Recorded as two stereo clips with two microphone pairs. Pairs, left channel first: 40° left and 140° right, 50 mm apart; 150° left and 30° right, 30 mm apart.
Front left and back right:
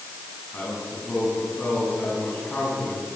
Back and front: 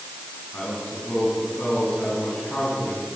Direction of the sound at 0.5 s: 105° left.